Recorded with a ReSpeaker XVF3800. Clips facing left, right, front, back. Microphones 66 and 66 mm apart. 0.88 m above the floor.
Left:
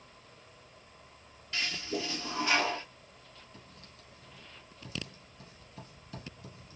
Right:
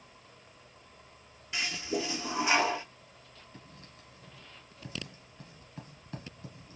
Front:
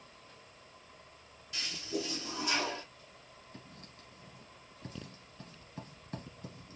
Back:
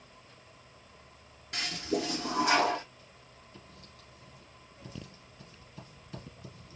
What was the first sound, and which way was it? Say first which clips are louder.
A toilet flushing: right 2 dB, back 6 dB; 160° right.